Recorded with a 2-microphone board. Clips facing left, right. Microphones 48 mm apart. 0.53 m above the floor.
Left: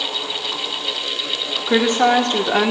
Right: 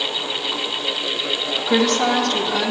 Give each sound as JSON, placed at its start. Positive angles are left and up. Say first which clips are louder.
{"t": 1.7, "sound": "a woman speaking", "louder": "left 3 dB", "side_deg": 10, "distance_m": 0.8}